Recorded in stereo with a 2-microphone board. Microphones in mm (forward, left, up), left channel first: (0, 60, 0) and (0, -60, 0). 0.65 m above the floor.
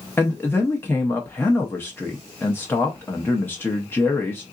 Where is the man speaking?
15° left (ahead or behind), 0.7 m.